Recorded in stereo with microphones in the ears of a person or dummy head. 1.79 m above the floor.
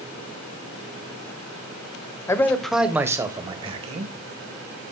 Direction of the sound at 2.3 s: 15° left (ahead or behind).